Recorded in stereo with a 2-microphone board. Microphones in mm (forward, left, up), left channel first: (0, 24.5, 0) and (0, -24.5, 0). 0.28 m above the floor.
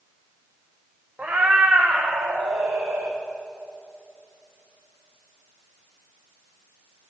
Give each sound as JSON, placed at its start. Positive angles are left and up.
{"t": 1.2, "sound": "a cat meowing", "side_deg": -40, "distance_m": 1.5}